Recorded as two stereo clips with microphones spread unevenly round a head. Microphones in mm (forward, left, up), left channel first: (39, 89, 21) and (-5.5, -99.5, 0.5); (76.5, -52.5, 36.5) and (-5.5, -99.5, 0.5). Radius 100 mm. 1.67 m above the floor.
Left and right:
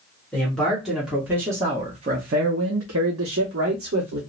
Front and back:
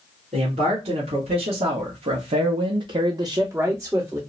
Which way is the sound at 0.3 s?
160° left.